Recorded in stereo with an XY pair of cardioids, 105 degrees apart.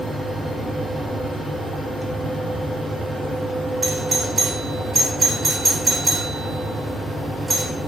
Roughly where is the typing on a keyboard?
No typing on a keyboard in this recording.